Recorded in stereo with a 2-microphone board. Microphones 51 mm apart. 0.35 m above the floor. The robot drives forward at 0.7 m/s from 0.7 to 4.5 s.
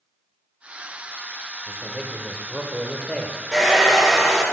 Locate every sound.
1.7 s a man speaking: centre (ahead or behind), 1.2 m; by 3.4 s 5° right (ahead or behind), 1.0 m
3.5 s a hair dryer: 10° right (ahead or behind), 4 m; by 4.4 s 5° right (ahead or behind), 4.5 m